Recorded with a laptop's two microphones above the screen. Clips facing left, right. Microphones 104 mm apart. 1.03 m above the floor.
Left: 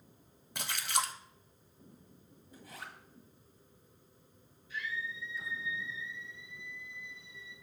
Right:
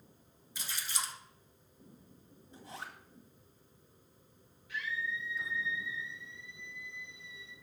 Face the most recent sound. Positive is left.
turn(degrees=-80)